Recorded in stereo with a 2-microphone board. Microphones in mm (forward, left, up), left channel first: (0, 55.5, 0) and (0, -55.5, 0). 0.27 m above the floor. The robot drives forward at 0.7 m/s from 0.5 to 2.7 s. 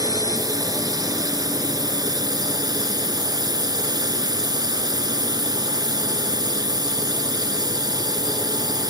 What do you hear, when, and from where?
0.0 s a drone: 35° right (ahead or behind)